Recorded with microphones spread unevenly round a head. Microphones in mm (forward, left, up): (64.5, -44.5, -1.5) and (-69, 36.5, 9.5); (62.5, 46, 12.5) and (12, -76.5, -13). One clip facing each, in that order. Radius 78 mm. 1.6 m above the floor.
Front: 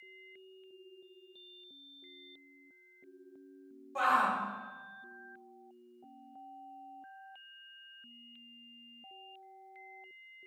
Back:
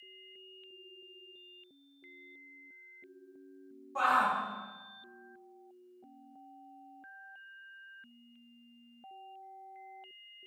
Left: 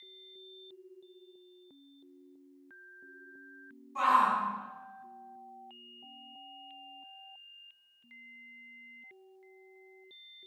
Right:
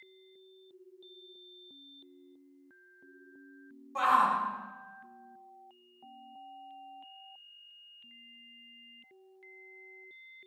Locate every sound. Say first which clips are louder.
4.0 s a shout: even, even; 90° right, 3.5 m